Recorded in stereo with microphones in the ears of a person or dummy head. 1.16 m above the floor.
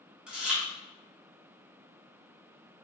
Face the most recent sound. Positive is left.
turn(degrees=-10)  # may be behind; listen again after turning